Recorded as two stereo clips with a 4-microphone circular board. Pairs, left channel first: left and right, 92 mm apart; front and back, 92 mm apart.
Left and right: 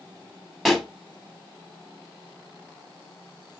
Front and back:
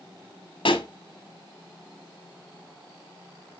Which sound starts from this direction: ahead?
A pop, at 0.7 s.